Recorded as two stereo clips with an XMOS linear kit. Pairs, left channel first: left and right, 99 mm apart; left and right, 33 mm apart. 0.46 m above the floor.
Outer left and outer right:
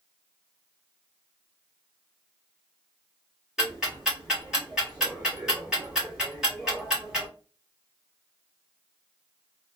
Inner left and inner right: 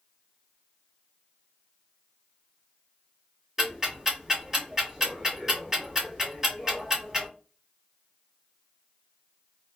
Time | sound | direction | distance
3.6 | ticking | centre (ahead or behind) | 1.5 m